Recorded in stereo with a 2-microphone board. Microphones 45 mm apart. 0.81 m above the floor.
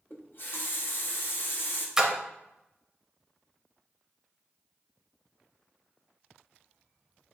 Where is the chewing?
No chewing in this recording.